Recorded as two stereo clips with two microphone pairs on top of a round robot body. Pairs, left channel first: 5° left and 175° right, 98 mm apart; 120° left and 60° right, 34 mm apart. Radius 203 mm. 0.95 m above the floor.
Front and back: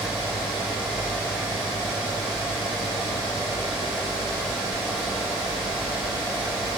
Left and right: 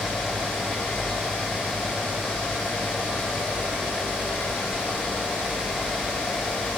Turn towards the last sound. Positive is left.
No sound to turn to.